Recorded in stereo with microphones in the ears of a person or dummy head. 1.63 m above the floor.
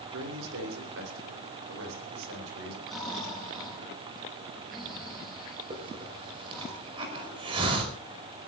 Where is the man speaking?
75° right (ahead or behind), 6.5 m; by 2.8 s 70° right (ahead or behind), 9.5 m.